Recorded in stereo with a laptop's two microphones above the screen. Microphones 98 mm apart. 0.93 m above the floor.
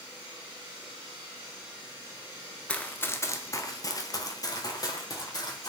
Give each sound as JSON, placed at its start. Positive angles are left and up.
{"t": 2.7, "sound": "running footsteps", "side_deg": 10, "distance_m": 0.9}